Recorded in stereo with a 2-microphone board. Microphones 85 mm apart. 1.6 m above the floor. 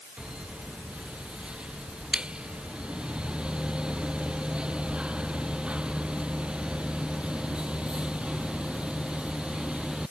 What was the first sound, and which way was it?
Only background noise.